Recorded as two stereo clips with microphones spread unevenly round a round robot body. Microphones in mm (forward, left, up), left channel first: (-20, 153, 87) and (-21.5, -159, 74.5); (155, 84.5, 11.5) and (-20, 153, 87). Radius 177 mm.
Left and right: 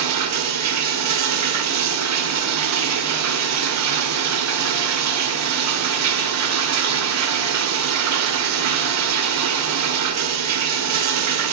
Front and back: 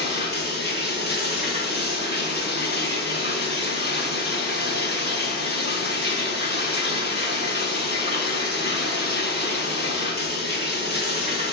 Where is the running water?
125° right, 1.7 m.